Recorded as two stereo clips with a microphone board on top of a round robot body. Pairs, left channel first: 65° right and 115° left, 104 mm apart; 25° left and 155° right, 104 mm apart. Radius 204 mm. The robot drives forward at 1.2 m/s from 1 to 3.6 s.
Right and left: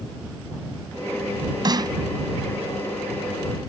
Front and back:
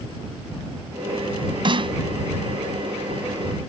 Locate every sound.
1.6 s a snare drum: 160° left; by 2.0 s 165° left